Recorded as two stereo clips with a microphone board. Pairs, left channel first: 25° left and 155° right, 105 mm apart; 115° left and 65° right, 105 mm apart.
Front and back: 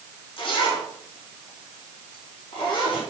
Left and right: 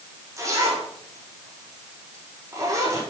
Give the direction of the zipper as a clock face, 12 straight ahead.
12 o'clock.